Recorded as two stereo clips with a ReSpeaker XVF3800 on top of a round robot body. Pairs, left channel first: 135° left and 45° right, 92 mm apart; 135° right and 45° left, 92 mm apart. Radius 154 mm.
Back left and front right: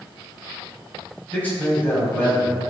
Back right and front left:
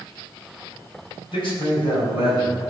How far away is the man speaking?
About 4.5 m.